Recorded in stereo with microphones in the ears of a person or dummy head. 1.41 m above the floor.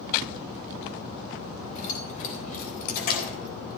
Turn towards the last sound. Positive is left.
turn(degrees=65)  # may be behind; listen again after turning